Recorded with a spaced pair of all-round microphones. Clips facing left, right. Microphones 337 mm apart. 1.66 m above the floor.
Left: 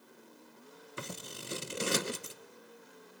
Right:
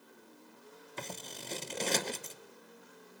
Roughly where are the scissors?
Centre.